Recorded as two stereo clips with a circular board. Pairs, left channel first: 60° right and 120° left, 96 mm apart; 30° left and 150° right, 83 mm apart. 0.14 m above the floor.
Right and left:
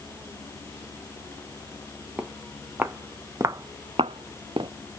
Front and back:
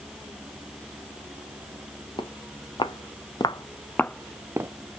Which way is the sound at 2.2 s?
45° left.